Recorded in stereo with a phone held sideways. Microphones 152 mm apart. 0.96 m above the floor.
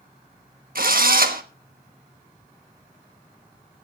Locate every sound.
0.8 s a drill: 65° right (ahead or behind), 1.2 m